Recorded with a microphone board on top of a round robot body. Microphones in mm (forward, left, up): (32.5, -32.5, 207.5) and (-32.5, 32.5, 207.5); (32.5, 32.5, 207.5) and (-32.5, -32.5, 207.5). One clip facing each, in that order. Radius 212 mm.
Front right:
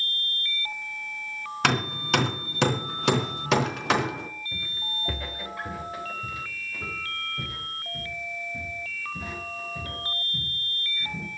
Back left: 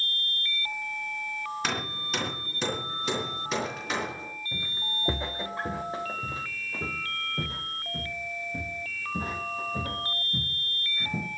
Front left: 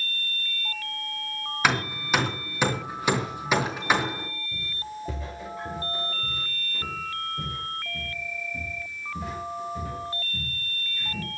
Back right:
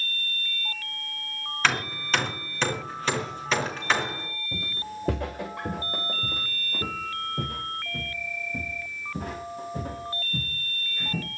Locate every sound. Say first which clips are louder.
1.6 s hammering: front right 7 dB, front left 2 dB; 30° right, 3.5 m
4.5 s footsteps: even, back right 1 dB; 155° right, 3 m; by 11.3 s 175° right, 8.5 m